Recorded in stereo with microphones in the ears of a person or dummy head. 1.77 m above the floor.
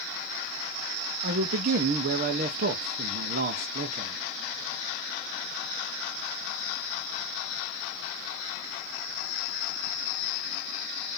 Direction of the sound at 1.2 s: 40° right (ahead or behind).